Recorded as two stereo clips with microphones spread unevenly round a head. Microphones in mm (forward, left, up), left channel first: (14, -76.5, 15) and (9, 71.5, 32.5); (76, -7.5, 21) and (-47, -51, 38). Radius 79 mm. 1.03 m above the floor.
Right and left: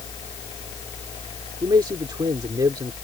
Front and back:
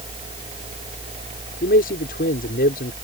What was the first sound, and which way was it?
A man speaking, 25° left.